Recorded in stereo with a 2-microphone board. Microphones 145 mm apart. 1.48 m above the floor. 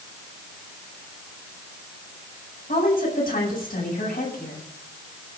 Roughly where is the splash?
I don't hear a splash.